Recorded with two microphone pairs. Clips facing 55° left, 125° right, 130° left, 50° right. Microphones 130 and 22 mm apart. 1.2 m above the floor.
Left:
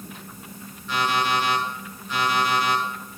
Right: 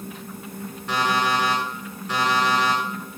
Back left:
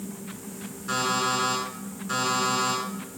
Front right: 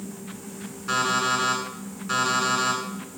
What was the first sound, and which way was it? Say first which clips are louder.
An alarm clock: right 1 dB, front right 2 dB; 110° right.